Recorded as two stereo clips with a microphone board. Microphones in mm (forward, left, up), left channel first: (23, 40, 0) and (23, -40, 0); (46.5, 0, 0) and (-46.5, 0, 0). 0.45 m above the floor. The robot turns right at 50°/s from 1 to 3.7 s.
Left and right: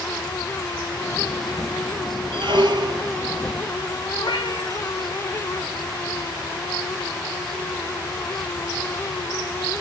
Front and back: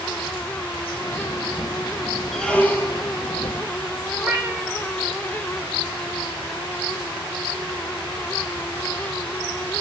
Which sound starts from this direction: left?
A cat meowing, at 4.2 s.